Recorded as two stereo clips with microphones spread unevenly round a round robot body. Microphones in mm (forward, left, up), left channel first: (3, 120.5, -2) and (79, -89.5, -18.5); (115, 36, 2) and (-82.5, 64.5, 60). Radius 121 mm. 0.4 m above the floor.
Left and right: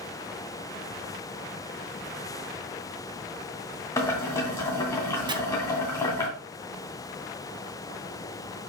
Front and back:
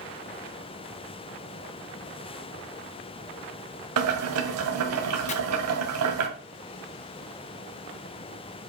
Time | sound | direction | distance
4.0 | boiling | 170° right | 2 m
5.3 | chopping | 10° right | 1.5 m